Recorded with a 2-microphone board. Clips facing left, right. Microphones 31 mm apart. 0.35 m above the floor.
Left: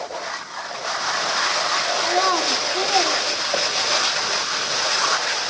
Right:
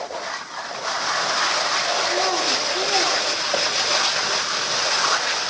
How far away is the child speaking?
About 3 m.